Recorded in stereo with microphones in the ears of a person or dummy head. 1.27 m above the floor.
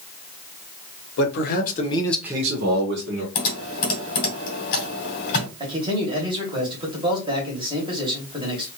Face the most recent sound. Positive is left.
turn(degrees=-20)  # may be behind; listen again after turning